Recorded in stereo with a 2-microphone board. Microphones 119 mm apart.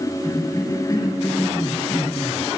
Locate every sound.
0.2 s a cough: 30° left (ahead or behind), 3.5 m